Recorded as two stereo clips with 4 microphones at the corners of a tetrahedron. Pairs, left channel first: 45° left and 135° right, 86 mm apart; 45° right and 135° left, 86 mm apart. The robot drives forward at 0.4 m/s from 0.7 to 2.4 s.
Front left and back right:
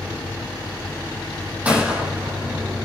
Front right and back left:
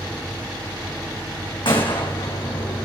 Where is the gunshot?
60° right, 3.5 m; by 2.9 s 65° right, 3.5 m.